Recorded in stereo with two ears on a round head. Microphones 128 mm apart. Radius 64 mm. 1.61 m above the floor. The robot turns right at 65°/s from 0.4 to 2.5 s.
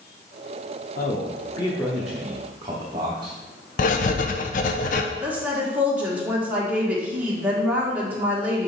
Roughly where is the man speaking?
Behind left.